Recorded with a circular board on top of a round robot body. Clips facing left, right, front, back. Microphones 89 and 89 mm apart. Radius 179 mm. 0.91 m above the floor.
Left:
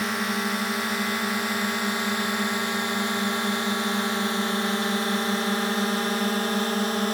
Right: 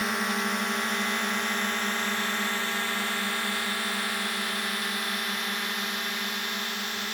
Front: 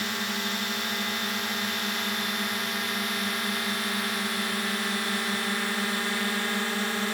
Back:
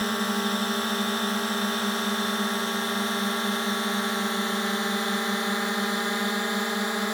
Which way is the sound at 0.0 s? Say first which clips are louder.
Left 2 dB, back 5 dB; straight behind.